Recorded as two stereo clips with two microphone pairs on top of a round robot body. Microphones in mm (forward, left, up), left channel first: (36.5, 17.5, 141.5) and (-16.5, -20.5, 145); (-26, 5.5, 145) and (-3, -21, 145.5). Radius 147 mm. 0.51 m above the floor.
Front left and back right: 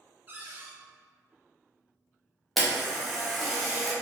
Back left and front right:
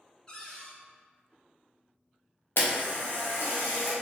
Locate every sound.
0.3 s a cupboard door: 165° left, 1.0 m
2.6 s a camera shutter: 125° left, 0.7 m